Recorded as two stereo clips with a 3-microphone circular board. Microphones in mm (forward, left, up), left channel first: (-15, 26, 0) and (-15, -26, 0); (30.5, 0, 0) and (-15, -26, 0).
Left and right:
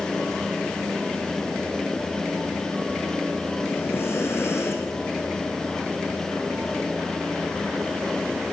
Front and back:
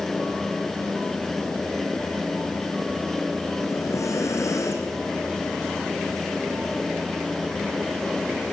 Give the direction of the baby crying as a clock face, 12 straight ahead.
I don't hear a baby crying.